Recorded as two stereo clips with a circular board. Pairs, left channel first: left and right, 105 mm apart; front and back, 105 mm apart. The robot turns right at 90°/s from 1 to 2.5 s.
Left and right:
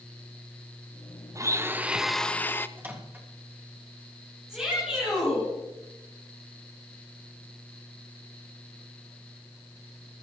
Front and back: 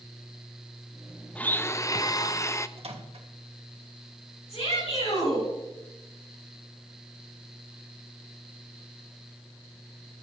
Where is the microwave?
160° right, 1.9 m.